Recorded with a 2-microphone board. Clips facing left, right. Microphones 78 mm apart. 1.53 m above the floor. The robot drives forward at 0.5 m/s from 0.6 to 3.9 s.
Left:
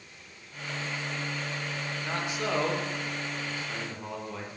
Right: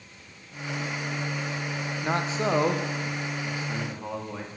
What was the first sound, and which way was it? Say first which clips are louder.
A man speaking: right 6 dB; 40° right (ahead or behind).